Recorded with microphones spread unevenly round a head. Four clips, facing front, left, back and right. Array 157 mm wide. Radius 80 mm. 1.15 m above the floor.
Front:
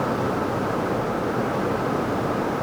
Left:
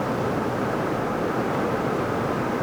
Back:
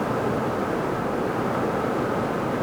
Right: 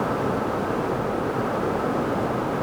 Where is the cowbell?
No cowbell in this recording.